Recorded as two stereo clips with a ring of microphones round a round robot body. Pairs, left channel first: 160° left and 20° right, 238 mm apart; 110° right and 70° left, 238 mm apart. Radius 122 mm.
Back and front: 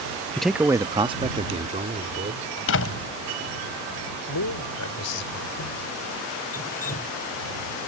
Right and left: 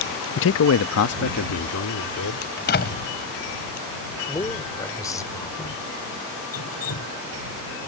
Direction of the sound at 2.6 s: 165° right.